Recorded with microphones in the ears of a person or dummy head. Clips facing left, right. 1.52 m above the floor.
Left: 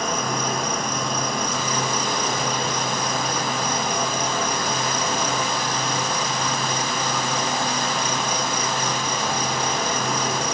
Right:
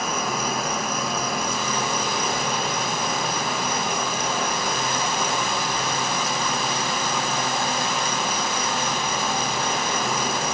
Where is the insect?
5° right (ahead or behind), 0.7 m.